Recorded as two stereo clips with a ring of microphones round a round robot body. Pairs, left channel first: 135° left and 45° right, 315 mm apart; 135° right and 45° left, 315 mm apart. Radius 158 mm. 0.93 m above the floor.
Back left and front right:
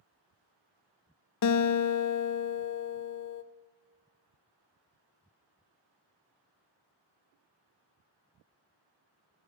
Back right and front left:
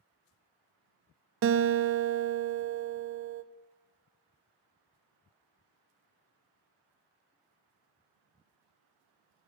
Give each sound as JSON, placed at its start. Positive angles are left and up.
{"t": 1.4, "sound": "a guitar", "azimuth_deg": 95, "distance_m": 0.5}